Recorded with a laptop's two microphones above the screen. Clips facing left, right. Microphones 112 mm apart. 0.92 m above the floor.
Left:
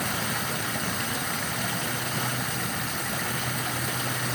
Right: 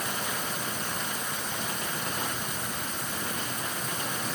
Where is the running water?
80° left.